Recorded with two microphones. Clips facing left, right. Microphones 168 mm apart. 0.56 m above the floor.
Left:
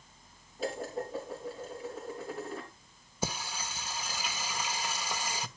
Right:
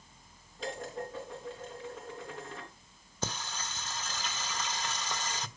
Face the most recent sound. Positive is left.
turn(degrees=10)  # may be behind; listen again after turning